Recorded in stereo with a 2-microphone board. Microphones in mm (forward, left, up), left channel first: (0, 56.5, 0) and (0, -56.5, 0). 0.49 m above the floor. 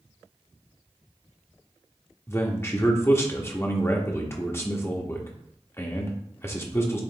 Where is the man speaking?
20° left (ahead or behind), 0.8 m.